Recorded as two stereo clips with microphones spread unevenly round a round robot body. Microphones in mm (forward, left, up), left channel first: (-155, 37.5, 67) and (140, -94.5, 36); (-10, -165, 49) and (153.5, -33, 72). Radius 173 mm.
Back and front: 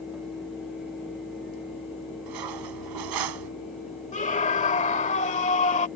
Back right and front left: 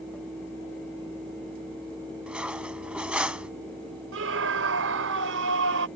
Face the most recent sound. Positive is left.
turn(degrees=85)